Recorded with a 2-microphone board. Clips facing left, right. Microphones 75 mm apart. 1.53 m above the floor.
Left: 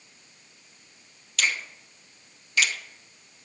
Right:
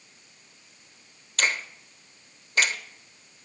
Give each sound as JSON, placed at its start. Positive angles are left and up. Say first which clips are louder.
{"t": 1.4, "sound": "a finger snap", "louder": "right 1 dB", "side_deg": -40, "distance_m": 0.9}